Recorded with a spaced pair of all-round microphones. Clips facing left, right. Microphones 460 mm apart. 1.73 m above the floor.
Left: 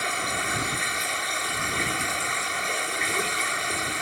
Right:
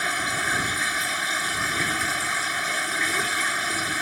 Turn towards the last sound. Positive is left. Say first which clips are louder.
# even
turn(degrees=-35)  # may be behind; listen again after turning